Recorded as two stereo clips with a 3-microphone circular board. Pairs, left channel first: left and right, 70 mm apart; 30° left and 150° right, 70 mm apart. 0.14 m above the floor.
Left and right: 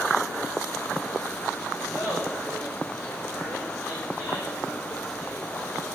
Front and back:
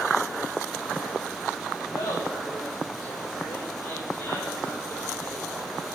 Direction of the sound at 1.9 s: 40° left.